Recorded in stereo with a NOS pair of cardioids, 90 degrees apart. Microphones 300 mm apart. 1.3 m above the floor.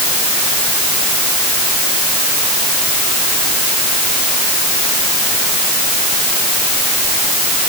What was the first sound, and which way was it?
Only background noise.